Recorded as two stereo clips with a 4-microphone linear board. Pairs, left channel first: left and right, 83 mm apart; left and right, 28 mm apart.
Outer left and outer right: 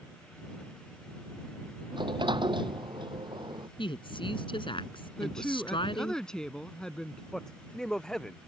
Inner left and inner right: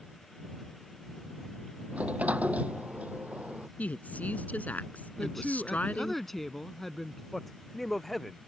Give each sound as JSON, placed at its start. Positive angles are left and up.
{"t": 1.9, "sound": "a sliding door", "side_deg": -60}
{"t": 3.8, "sound": "a woman speaking", "side_deg": 75}
{"t": 5.2, "sound": "a woman speaking", "side_deg": 5}
{"t": 7.3, "sound": "a man speaking", "side_deg": 10}